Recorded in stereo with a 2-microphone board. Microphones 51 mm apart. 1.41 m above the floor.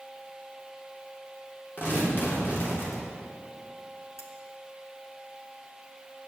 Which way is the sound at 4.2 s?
70° left (ahead or behind).